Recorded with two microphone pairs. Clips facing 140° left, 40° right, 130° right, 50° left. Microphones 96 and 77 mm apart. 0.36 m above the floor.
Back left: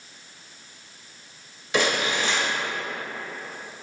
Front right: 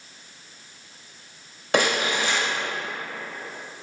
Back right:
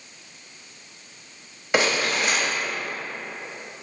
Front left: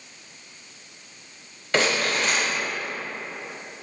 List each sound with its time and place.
1.7 s crumpling: 55° right, 1.0 m